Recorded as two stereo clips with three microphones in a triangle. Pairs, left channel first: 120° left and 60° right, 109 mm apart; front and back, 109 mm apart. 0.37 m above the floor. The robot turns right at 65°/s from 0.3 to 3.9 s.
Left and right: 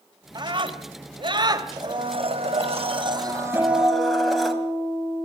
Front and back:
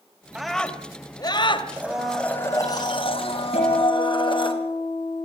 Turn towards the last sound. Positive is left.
turn(degrees=25)